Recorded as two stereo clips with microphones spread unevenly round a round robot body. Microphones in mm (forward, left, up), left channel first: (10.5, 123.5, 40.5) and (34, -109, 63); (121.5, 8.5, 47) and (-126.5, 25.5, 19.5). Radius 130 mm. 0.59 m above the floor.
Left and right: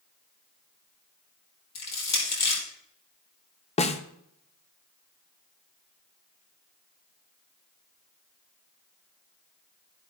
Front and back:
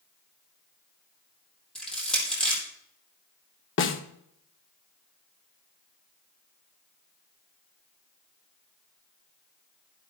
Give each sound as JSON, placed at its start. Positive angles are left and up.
{"t": 1.8, "sound": "crushing", "azimuth_deg": 85, "distance_m": 5.0}
{"t": 3.8, "sound": "a snare drum", "azimuth_deg": 35, "distance_m": 1.0}